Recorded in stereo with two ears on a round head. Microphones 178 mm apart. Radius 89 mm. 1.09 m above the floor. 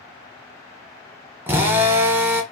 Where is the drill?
10° right (ahead or behind), 0.6 m.